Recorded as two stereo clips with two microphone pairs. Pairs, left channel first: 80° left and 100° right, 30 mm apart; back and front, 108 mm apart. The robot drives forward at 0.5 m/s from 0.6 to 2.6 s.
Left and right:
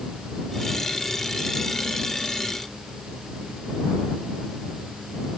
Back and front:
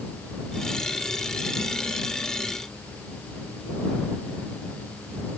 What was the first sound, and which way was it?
Only background noise.